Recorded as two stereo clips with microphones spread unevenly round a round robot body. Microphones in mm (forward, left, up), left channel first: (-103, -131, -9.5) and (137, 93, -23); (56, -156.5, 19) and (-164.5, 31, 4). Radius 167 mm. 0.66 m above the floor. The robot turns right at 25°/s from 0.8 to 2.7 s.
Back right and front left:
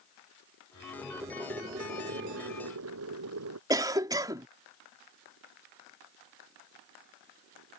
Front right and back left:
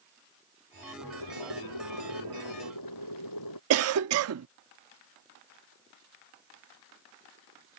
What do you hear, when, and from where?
1.0 s boiling: 45° right; by 3.6 s 5° right
3.7 s a cough: 120° left